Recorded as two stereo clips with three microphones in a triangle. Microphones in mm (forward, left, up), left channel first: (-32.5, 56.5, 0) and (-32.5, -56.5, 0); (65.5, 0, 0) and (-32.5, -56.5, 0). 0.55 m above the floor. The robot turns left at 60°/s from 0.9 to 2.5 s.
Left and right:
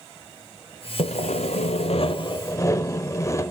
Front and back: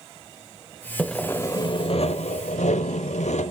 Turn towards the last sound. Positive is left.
turn(degrees=30)